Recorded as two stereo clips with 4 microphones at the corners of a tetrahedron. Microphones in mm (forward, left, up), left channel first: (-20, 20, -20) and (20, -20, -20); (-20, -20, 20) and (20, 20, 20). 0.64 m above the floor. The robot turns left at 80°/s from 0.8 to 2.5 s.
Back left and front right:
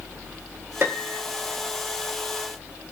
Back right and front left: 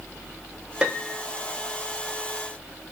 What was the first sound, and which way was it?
A piano, 20° right.